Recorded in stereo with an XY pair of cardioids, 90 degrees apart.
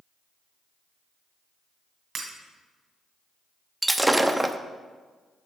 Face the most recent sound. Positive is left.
turn(degrees=-10)